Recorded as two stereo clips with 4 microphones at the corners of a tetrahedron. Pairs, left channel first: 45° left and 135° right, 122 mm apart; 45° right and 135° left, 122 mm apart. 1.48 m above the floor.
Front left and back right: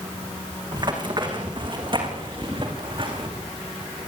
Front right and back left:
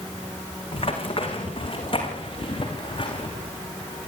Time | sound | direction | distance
0.7 | running footsteps | 85° right | 6 m